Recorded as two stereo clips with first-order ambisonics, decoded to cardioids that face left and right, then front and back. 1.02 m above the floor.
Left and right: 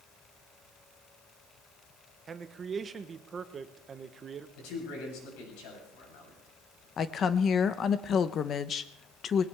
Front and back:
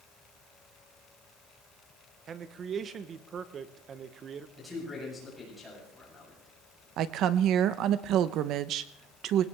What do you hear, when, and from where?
2.3 s a man speaking: 140° right, 0.9 m
4.6 s a man speaking: 85° left, 8 m
7.0 s a woman speaking: 145° left, 0.7 m